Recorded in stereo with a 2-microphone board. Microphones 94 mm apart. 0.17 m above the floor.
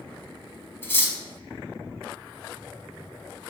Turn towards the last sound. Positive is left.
turn(degrees=25)  # may be behind; listen again after turning